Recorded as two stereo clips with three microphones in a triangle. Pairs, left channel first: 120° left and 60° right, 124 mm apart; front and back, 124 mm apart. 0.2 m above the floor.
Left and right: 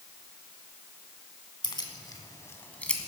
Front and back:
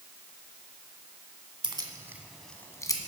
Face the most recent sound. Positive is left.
turn(degrees=35)